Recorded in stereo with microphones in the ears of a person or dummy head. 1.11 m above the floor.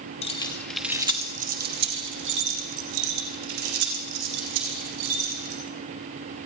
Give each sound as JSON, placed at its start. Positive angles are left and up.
{"t": 0.2, "sound": "keys jangling", "side_deg": 30, "distance_m": 0.8}